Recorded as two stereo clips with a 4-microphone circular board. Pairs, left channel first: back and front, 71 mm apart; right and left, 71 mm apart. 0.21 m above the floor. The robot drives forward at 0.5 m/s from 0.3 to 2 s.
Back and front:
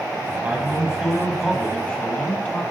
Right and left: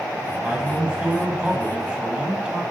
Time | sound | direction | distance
0.4 | a man speaking | 35° left | 1.2 m